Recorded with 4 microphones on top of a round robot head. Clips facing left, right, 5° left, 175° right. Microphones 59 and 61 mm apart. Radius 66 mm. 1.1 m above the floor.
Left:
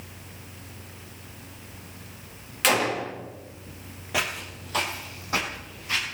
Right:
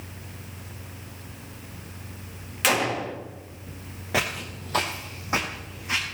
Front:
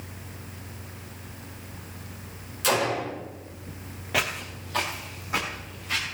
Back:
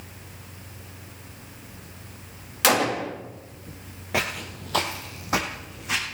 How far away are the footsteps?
About 1.1 m.